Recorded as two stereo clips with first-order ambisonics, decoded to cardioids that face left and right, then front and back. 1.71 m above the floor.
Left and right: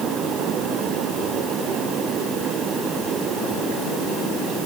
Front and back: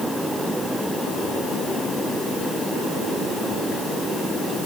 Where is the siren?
No siren in this recording.